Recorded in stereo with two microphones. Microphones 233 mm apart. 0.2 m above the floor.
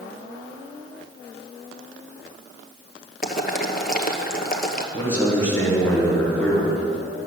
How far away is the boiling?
About 1.1 m.